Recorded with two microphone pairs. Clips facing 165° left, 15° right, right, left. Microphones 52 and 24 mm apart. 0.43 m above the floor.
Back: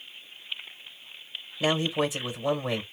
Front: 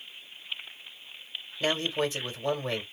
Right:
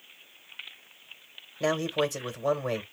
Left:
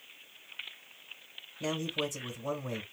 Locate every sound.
1.6 s a man speaking: 115° right, 1.6 m